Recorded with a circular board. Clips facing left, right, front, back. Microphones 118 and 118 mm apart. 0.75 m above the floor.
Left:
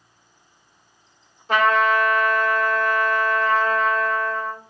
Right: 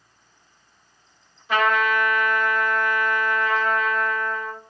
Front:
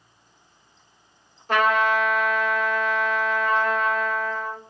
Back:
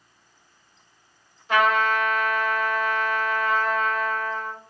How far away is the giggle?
No giggle in this recording.